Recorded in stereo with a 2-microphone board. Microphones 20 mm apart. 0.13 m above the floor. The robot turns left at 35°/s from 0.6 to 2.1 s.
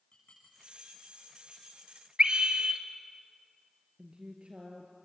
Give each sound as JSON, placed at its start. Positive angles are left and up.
{"t": 0.1, "sound": "dishes clattering", "side_deg": 60, "distance_m": 7.0}
{"t": 2.2, "sound": "a scream", "side_deg": -45, "distance_m": 2.0}
{"t": 4.0, "sound": "a woman speaking", "side_deg": -55, "distance_m": 2.0}